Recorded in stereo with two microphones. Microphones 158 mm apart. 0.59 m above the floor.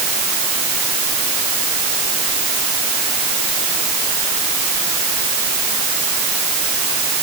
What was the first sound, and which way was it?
Only background noise.